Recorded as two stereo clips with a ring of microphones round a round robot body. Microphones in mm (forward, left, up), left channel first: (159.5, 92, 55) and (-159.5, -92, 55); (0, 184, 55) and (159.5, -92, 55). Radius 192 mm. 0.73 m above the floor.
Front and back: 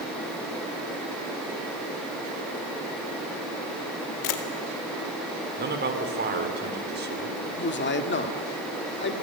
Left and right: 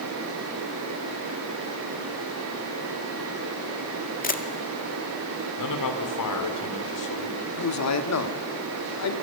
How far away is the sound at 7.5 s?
About 2.0 m.